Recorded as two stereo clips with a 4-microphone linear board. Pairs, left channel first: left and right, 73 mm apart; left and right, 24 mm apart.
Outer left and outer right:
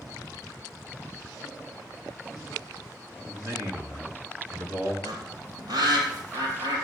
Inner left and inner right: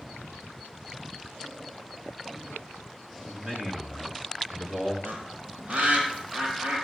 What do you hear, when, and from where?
3.3 s a man speaking: 45° right (ahead or behind), 3.5 m; by 4.9 s 35° right (ahead or behind), 4 m
5.0 s a bird: 85° right, 3.5 m